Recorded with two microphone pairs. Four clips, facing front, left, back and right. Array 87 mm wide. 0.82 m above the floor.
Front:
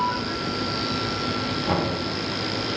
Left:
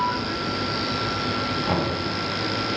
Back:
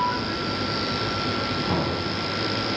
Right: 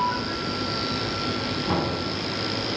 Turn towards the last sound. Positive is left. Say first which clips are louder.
# even, front 3 dB
turn(degrees=55)